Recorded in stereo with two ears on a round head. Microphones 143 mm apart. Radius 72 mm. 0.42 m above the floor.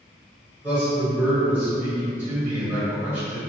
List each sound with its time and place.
0.6 s a man speaking: 10° right (ahead or behind), 1.3 m